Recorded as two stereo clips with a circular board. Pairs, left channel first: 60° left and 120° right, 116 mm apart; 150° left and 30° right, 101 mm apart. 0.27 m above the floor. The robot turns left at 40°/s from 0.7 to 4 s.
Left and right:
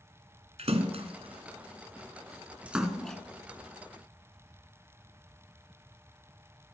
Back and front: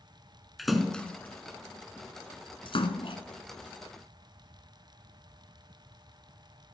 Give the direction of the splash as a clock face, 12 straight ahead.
4 o'clock.